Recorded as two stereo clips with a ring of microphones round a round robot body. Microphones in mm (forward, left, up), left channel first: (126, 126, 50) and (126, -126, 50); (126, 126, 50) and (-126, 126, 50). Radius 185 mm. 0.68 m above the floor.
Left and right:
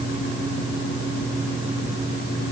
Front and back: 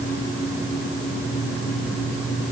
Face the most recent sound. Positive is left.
No sound to turn to.